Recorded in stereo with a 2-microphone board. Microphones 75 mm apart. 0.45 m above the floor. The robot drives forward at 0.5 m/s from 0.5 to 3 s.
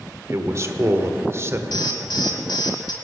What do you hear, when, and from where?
0.3 s a man speaking: 40° right (ahead or behind), 1.2 m; by 1.6 s 35° right (ahead or behind), 1.3 m
1.7 s an alarm: 70° left (ahead or behind), 1.9 m